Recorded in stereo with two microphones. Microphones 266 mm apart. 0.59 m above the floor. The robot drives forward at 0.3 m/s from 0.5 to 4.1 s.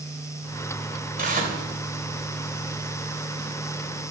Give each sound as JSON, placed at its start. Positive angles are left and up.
{"t": 1.2, "sound": "tearing paper", "side_deg": -30, "distance_m": 2.5}